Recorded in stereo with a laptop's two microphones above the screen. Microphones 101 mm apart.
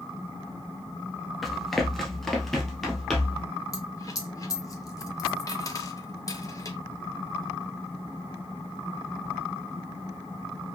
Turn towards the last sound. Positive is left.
turn(degrees=35)  # may be behind; listen again after turning